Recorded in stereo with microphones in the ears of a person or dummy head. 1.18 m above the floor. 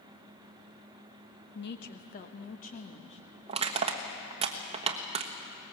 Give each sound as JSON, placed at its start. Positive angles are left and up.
{"t": 1.6, "sound": "a woman speaking", "side_deg": 55, "distance_m": 1.0}
{"t": 3.5, "sound": "crushing", "side_deg": -30, "distance_m": 1.3}